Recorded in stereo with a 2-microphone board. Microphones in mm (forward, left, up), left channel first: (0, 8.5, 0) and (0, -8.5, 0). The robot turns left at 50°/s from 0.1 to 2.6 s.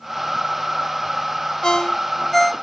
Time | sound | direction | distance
1.6 | a ringtone | 50° left (ahead or behind) | 0.8 m